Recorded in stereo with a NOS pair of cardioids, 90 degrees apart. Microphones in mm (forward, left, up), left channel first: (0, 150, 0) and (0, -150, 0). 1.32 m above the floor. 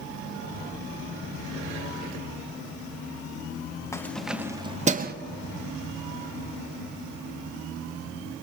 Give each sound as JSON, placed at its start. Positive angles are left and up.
{"t": 3.9, "sound": "keys jangling", "azimuth_deg": 10, "distance_m": 1.0}